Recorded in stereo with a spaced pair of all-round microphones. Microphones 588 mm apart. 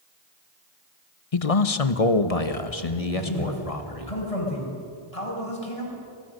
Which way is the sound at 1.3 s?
65° left (ahead or behind).